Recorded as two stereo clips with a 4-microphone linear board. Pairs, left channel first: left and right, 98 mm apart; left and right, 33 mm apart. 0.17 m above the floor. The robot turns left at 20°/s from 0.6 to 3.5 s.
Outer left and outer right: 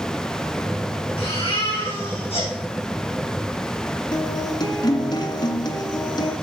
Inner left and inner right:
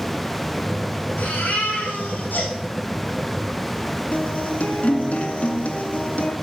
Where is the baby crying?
70° left (ahead or behind), 7.5 m; by 2.5 s 80° left, 7.5 m.